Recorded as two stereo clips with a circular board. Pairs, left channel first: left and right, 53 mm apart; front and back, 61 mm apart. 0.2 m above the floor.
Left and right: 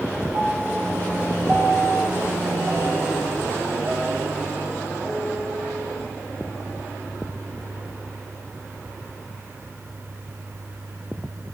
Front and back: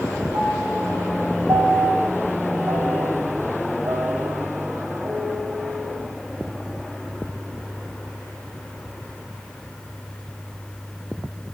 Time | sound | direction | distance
0.3 | a piano | 160° right | 3 m